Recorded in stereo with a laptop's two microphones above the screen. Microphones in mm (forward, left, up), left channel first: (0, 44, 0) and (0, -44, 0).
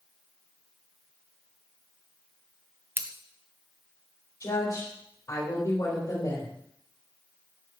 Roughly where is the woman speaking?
Left.